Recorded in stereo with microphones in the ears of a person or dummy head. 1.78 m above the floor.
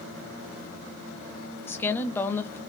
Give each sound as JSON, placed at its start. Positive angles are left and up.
{"t": 1.7, "sound": "a woman speaking", "side_deg": 10, "distance_m": 0.7}